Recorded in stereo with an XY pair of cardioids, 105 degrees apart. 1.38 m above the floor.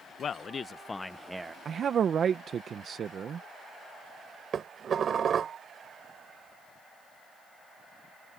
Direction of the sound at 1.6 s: 50° right.